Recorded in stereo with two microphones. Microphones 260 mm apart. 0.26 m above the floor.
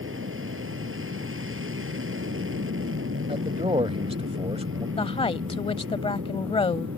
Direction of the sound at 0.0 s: 50° right (ahead or behind).